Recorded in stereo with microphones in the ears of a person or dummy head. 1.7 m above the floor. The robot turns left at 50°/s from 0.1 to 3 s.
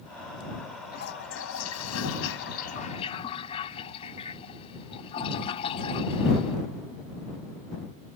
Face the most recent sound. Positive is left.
turn(degrees=35)